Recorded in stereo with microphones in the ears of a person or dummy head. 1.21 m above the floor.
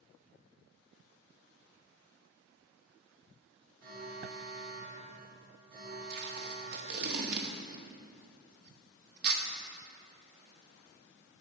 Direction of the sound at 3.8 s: 50° right (ahead or behind).